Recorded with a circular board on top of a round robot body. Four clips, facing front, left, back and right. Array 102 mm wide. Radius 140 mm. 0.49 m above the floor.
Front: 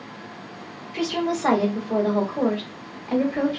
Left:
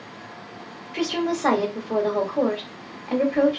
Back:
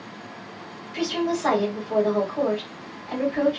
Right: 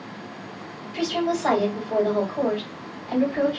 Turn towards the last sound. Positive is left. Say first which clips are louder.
# even, even
turn(degrees=70)